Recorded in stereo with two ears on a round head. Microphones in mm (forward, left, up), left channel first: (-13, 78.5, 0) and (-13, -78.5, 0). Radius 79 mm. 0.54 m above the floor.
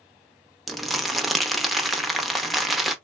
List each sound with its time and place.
0.7 s crumpling: centre (ahead or behind), 0.6 m